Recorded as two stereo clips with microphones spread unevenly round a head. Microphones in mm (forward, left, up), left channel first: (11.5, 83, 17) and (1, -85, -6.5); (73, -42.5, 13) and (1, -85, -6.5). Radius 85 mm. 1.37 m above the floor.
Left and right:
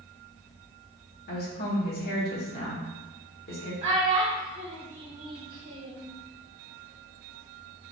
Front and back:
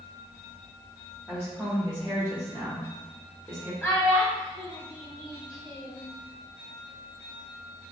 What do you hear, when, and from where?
1.3 s a woman speaking: 125° left, 1.3 m
3.8 s a child speaking: 50° right, 1.3 m